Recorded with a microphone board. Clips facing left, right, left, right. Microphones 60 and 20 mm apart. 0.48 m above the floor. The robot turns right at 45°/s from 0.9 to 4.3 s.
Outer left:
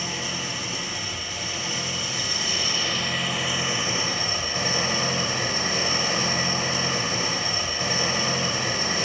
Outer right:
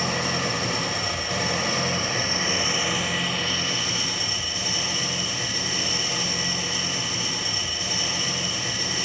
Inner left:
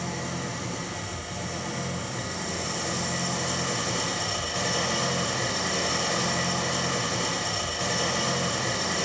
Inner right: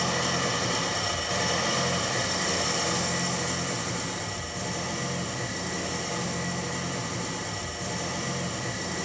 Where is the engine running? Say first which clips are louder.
Outer right 5 dB, inner right 6 dB; 105° right, 1.2 m; by 9.1 s 50° left, 1.2 m.